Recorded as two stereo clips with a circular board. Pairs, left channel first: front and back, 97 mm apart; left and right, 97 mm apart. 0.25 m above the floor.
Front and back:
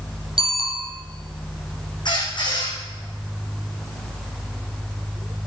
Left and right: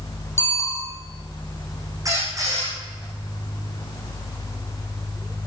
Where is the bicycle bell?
155° left, 6 m.